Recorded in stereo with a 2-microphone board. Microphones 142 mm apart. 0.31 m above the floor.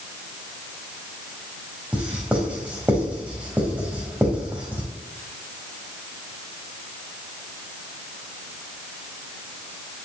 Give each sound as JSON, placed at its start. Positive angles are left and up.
{"t": 1.9, "sound": "writing", "side_deg": -10, "distance_m": 4.5}